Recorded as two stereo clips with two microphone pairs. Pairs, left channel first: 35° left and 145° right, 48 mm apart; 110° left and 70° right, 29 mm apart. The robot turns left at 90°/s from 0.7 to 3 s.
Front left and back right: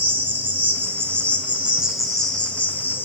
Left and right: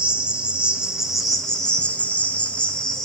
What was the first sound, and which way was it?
An insect, 120° right.